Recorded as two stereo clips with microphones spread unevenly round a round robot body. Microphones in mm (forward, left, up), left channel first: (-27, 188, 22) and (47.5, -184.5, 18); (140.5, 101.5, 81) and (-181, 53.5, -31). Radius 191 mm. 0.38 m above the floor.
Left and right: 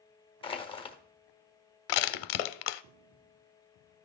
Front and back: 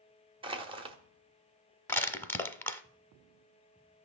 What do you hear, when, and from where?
0.4 s crushing: 170° left, 1.2 m
1.9 s crushing: 90° left, 0.6 m